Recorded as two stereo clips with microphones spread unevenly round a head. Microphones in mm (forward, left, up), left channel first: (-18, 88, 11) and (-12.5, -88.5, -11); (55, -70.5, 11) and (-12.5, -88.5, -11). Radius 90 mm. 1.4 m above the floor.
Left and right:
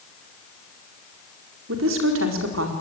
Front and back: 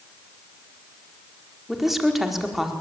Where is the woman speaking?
75° right, 4.5 m.